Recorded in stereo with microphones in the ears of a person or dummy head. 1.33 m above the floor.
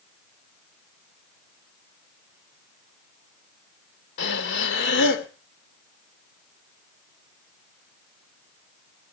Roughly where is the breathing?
Left.